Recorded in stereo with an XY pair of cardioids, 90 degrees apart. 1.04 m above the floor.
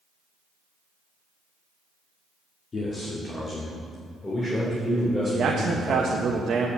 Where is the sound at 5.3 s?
60° right, 0.9 m.